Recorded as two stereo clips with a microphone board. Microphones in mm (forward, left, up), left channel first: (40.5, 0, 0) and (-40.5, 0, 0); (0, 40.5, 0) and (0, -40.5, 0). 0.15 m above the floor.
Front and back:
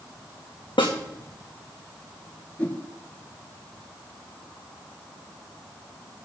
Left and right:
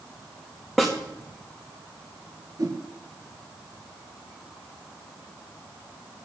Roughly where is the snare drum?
Ahead.